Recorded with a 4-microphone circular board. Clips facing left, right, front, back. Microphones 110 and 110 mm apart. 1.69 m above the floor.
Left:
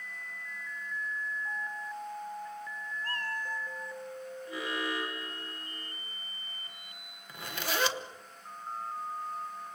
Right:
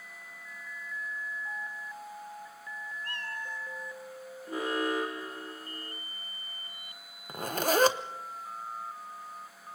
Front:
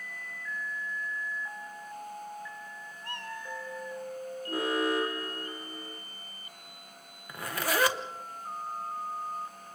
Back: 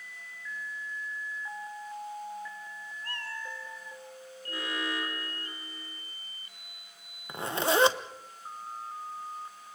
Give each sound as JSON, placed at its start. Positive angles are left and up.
{"t": 3.0, "sound": "a cat meowing", "azimuth_deg": 55, "distance_m": 2.0}
{"t": 4.5, "sound": "an alarm", "azimuth_deg": -45, "distance_m": 1.9}
{"t": 7.3, "sound": "a zipper", "azimuth_deg": -120, "distance_m": 0.9}